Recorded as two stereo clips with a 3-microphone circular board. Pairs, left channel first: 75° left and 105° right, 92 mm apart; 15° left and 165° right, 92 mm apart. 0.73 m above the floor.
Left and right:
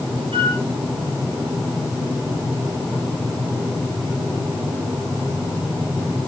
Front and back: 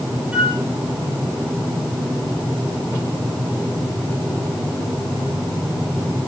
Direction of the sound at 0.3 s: 90° right.